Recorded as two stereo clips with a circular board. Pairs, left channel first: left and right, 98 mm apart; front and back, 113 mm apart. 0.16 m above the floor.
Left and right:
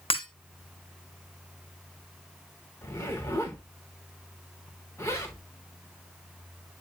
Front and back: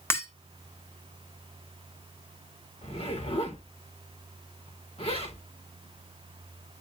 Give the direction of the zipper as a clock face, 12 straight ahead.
11 o'clock.